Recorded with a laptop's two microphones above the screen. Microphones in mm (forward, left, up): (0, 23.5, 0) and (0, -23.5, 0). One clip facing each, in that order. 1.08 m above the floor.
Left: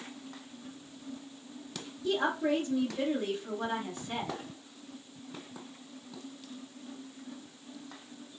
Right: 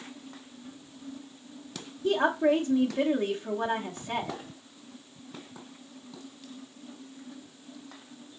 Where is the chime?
No chime in this recording.